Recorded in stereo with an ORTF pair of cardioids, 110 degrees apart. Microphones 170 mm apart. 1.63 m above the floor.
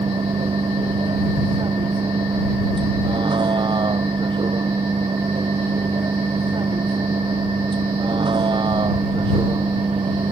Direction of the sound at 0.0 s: 30° right.